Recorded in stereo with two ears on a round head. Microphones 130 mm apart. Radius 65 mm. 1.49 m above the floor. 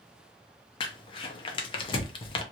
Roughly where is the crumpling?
Left.